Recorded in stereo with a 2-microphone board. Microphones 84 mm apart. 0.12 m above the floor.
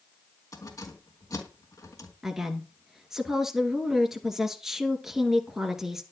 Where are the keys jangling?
40° left (ahead or behind), 3.5 m.